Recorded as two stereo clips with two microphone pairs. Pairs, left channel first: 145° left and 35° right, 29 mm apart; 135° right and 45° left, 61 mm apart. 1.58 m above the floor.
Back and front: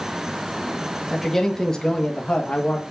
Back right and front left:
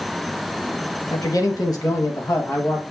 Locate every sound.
1.1 s a man speaking: 130° right, 2.0 m; by 2.8 s 175° left, 1.8 m